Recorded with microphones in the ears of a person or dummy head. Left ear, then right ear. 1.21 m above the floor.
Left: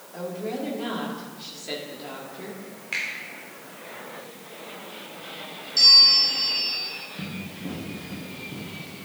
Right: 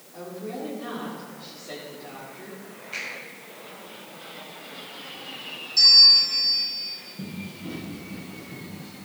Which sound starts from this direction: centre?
A bell, at 5.8 s.